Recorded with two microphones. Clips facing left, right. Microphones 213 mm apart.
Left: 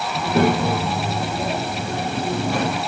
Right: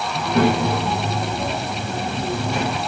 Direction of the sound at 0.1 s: 15° left (ahead or behind).